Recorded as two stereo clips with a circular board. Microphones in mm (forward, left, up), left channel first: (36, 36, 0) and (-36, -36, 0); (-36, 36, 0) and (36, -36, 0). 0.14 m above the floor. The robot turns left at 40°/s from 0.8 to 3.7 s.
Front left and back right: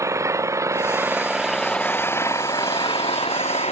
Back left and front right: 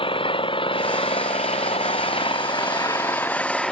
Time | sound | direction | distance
0.0 | an engine running | 165° left | ?